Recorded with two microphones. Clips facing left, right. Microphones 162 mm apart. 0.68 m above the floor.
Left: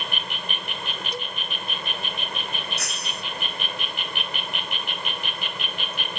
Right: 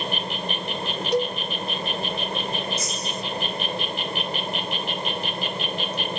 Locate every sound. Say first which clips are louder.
0.0 s an insect: right 6 dB; 35° right (ahead or behind)
1.1 s a cowbell: right 16 dB; 70° right (ahead or behind)
2.8 s breaking glass: right 5 dB; 65° left (ahead or behind)